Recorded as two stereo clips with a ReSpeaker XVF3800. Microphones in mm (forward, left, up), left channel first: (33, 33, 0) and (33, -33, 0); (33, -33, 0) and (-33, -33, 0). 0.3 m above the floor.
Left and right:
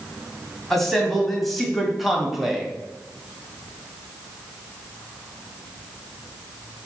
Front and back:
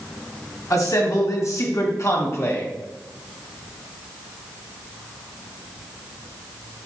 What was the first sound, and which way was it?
A man speaking, 5° left.